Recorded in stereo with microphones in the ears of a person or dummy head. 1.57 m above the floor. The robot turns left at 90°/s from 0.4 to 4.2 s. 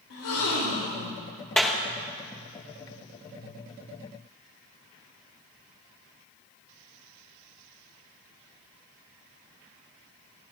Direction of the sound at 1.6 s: 5° left (ahead or behind).